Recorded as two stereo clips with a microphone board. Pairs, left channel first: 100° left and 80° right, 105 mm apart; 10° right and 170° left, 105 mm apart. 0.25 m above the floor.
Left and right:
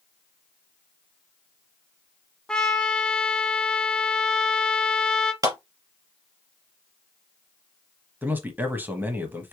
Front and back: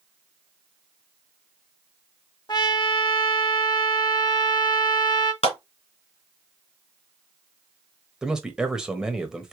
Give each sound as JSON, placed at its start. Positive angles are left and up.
{"t": 2.5, "sound": "a trumpet", "azimuth_deg": 20, "distance_m": 0.8}
{"t": 5.4, "sound": "a clap", "azimuth_deg": -25, "distance_m": 2.5}
{"t": 8.2, "sound": "a man speaking", "azimuth_deg": -115, "distance_m": 1.0}